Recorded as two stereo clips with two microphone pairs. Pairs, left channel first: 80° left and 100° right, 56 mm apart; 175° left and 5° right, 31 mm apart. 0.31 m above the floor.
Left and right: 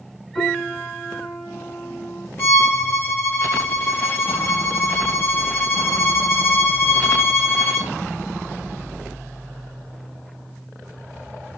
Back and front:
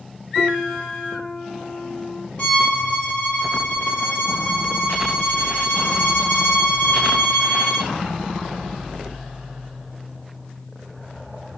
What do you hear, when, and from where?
0.3 s a piano: 140° left, 3 m
2.4 s a violin: 115° left, 3 m